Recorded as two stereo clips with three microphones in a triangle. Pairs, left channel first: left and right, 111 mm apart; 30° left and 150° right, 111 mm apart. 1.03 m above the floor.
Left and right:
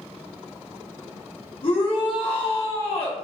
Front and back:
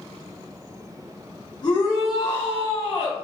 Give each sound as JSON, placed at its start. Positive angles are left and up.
{"t": 1.6, "sound": "a shout", "azimuth_deg": 70, "distance_m": 1.5}